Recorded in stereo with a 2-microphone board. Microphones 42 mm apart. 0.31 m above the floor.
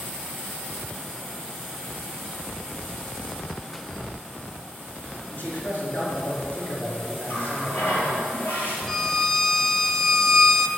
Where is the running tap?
55° left (ahead or behind), 4.5 m.